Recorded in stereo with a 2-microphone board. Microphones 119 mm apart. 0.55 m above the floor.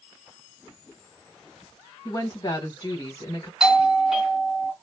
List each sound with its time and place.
2.0 s a woman speaking: 35° left (ahead or behind), 1.6 m
3.6 s a doorbell: 5° right (ahead or behind), 1.4 m